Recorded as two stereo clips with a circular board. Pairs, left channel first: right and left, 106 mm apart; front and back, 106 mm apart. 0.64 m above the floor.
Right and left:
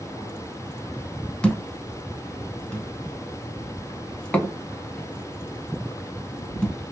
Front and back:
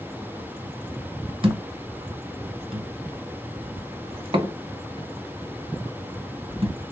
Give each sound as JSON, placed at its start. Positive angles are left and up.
{"t": 1.4, "sound": "a thud", "azimuth_deg": -170, "distance_m": 0.9}